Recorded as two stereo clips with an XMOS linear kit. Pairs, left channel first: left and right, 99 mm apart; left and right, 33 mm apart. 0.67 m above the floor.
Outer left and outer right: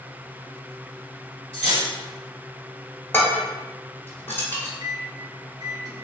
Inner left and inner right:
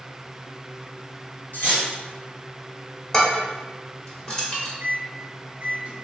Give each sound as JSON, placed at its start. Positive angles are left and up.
{"t": 1.5, "sound": "cutlery clinking", "side_deg": 70, "distance_m": 1.6}
{"t": 3.1, "sound": "dishes clattering", "side_deg": 20, "distance_m": 1.1}
{"t": 4.8, "sound": "a microwave", "side_deg": -40, "distance_m": 0.6}